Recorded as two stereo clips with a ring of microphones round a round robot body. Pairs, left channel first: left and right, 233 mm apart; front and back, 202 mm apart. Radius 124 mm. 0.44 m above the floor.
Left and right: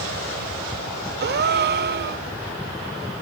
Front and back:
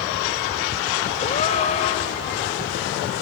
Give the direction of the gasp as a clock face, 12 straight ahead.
2 o'clock.